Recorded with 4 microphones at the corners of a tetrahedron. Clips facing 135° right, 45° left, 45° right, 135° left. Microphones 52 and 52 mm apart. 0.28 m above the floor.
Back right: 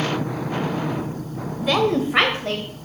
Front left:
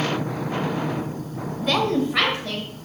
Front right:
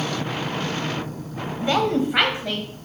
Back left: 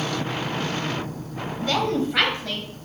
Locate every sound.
1.6 s a woman speaking: 55° right, 1.0 m; by 2.7 s 115° right, 1.3 m